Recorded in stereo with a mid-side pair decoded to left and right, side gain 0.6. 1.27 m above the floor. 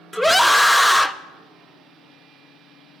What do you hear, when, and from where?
0.1 s a scream: straight ahead, 0.6 m